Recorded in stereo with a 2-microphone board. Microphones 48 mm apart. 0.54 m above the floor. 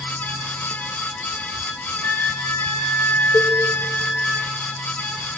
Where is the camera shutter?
No camera shutter in this recording.